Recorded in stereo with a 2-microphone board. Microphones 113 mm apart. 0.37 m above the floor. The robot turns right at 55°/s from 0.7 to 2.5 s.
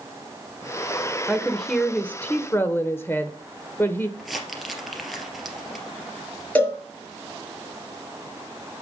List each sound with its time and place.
1.3 s a woman speaking: 5° right (ahead or behind), 0.9 m; by 4.1 s 20° left (ahead or behind), 0.9 m
4.2 s crumpling: centre (ahead or behind), 2.5 m
6.5 s a cowbell: 10° left (ahead or behind), 5 m